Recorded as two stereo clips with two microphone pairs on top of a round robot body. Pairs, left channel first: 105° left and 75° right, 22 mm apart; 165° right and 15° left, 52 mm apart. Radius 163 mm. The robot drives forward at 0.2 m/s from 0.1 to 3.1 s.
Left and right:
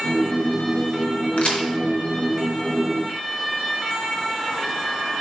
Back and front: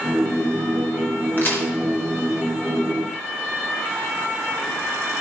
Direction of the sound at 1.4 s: 145° left.